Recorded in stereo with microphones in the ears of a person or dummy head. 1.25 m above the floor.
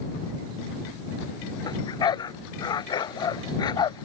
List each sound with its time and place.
1.6 s a dog barking: 20° left (ahead or behind)